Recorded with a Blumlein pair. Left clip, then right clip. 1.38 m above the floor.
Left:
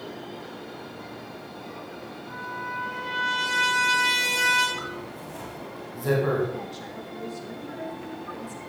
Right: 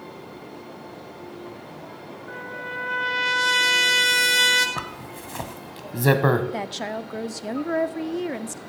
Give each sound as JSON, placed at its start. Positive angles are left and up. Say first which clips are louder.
{"t": 2.3, "sound": "a trumpet", "louder": "even", "azimuth_deg": -65, "distance_m": 2.0}
{"t": 4.8, "sound": "a zipper", "louder": "right 2 dB", "azimuth_deg": -40, "distance_m": 1.0}
{"t": 6.5, "sound": "a woman speaking", "louder": "right 7 dB", "azimuth_deg": -55, "distance_m": 0.5}